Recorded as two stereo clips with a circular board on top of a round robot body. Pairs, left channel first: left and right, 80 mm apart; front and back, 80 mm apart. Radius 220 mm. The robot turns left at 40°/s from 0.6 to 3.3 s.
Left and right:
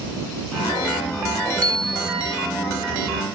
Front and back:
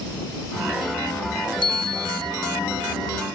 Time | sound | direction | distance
1.6 | a bicycle bell | 15° left | ?